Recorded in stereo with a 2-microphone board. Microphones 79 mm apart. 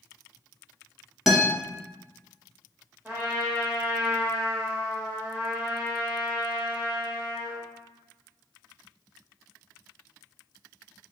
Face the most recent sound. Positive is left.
turn(degrees=-20)  # may be behind; listen again after turning